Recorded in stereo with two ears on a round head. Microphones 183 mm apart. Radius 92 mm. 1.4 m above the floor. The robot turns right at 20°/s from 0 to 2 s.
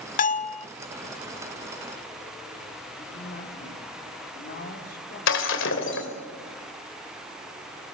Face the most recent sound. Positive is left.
turn(degrees=60)  # may be behind; listen again after turning